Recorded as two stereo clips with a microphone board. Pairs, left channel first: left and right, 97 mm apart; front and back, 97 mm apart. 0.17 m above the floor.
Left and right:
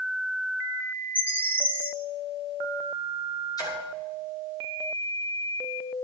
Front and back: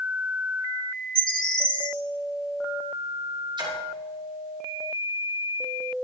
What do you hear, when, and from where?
1.1 s a bird: 20° right, 1.5 m
3.6 s a splash: 140° left, 7 m